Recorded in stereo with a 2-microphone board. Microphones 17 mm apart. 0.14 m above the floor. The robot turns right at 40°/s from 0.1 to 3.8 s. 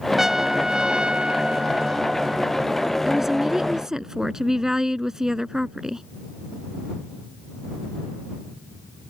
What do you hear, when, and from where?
0.2 s a trumpet: 155° right; by 2.7 s 60° right
3.0 s a woman speaking: 155° right; by 6.0 s 125° right